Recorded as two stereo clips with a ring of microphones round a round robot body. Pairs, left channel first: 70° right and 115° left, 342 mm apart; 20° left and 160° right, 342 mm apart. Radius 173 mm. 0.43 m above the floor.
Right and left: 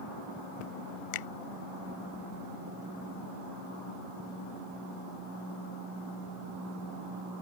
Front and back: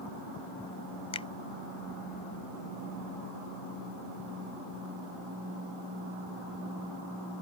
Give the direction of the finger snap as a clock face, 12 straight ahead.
2 o'clock.